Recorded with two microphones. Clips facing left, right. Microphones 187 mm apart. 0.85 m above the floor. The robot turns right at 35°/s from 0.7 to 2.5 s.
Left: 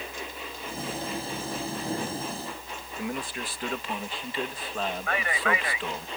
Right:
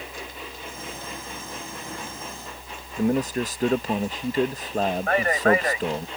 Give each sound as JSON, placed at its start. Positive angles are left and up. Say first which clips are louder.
{"t": 3.0, "sound": "a man speaking", "louder": "right 11 dB", "side_deg": -45}
{"t": 5.1, "sound": "a man speaking", "louder": "right 10 dB", "side_deg": -45}